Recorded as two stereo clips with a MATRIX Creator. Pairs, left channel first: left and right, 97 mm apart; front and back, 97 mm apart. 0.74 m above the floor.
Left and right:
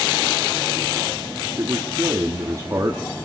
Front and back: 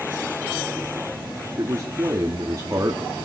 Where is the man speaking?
135° right, 1.2 m.